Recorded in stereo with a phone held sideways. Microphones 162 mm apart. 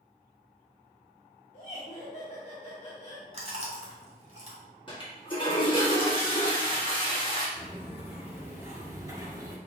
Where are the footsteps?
10° right (ahead or behind), 2 m; by 9.6 s 25° right (ahead or behind), 1.4 m.